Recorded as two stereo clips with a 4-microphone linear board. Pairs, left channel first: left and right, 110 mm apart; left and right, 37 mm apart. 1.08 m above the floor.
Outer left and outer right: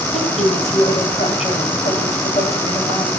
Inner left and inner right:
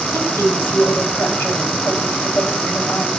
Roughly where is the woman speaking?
Left.